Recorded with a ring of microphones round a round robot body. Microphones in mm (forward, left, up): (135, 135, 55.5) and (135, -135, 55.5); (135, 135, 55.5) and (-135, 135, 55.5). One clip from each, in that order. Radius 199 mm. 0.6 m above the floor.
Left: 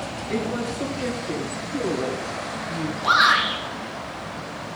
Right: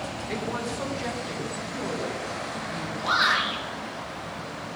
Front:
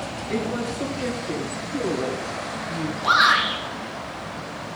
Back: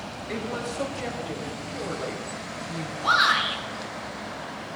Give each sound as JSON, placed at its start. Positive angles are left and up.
{"t": 0.3, "sound": "a woman speaking", "azimuth_deg": -160, "distance_m": 3.5}
{"t": 3.0, "sound": "a shout", "azimuth_deg": 125, "distance_m": 6.5}